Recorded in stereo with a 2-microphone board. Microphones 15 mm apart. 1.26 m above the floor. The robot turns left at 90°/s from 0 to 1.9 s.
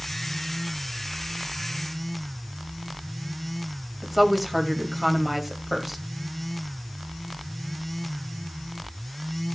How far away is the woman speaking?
About 2.5 m.